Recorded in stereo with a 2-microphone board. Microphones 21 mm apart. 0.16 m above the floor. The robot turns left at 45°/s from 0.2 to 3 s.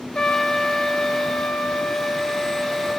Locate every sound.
0.1 s a trumpet: 135° left, 1.5 m; by 3.0 s 10° left, 1.5 m